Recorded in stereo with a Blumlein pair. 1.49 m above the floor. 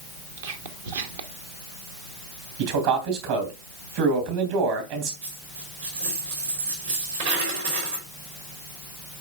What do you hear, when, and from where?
0.4 s whispering: 60° right, 1.2 m
2.6 s a man speaking: 50° right, 3 m
5.2 s a dropped coin: 70° right, 5 m